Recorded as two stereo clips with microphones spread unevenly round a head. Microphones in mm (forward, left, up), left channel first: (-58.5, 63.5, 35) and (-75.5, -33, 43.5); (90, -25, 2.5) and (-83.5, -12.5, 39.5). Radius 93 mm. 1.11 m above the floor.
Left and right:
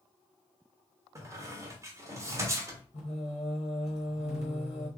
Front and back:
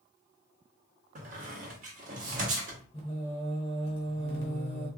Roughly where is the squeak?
Behind right.